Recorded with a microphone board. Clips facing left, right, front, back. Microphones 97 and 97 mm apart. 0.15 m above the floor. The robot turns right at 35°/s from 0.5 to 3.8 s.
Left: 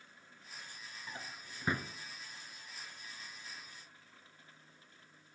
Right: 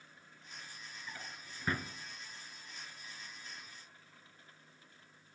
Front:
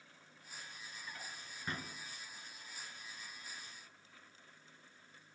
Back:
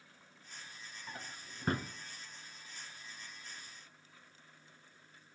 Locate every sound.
1.1 s a drawer: 140° left, 0.6 m; by 1.9 s 170° left, 0.6 m